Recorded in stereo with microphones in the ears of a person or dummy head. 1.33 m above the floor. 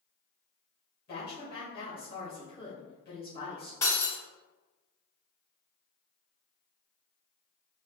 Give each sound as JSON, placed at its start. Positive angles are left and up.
{"t": 1.1, "sound": "a woman speaking", "side_deg": 25, "distance_m": 2.0}
{"t": 3.8, "sound": "breaking glass", "side_deg": 20, "distance_m": 1.8}